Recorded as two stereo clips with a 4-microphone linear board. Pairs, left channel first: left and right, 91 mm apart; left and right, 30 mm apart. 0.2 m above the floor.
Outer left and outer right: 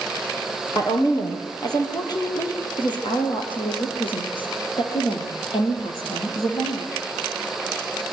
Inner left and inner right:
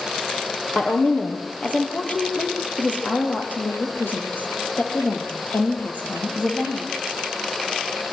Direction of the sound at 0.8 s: 35° left (ahead or behind).